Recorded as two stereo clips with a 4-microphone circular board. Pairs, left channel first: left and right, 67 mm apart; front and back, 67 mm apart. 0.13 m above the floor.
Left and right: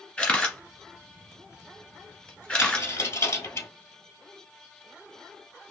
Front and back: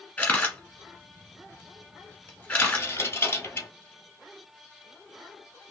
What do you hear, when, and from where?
0.2 s a camera shutter: 45° left, 1.5 m
2.6 s a dropped coin: 50° left, 1.2 m